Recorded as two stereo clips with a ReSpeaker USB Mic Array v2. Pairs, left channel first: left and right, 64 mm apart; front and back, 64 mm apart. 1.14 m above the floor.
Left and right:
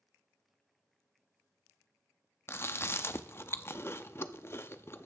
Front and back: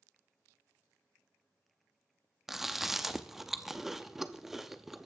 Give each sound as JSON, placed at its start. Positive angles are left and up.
{"t": 2.5, "sound": "chewing", "azimuth_deg": 95, "distance_m": 0.6}